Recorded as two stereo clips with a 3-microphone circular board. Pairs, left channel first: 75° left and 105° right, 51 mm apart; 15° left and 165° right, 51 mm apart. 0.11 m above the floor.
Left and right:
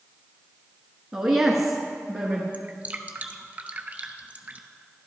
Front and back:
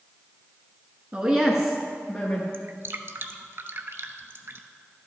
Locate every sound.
1.1 s a woman speaking: straight behind, 1.2 m; by 2.4 s 25° right, 1.5 m
2.5 s dripping: 155° right, 0.6 m